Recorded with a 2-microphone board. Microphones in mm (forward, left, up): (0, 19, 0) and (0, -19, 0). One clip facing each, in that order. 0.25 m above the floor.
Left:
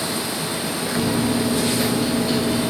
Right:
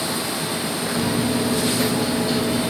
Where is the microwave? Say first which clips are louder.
Left 2 dB; 10° left (ahead or behind), 0.7 m.